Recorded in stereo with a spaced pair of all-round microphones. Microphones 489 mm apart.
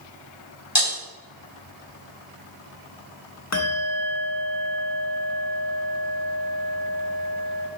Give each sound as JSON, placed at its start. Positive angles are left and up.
{"t": 0.8, "sound": "breaking glass", "side_deg": 80, "distance_m": 3.5}
{"t": 3.5, "sound": "a bell", "side_deg": 30, "distance_m": 0.8}